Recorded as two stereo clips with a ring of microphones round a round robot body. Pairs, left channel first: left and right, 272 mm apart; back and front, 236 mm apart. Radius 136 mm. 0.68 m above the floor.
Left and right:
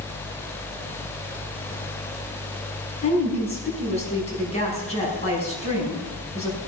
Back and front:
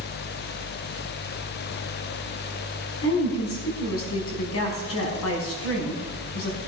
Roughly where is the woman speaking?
Behind.